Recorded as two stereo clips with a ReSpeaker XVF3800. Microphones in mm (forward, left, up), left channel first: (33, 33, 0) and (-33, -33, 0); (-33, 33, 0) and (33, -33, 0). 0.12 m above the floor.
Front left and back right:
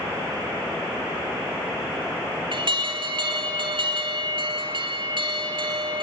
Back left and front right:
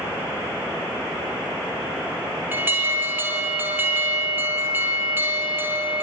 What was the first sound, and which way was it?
An alarm, 110° right.